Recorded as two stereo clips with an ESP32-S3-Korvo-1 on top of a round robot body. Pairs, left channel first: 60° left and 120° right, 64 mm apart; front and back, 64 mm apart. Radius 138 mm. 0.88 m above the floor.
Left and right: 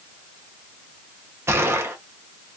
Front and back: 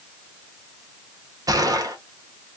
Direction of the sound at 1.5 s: 170° right.